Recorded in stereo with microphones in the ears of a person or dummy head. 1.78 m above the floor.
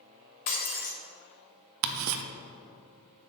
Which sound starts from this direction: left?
Breaking glass, at 0.5 s.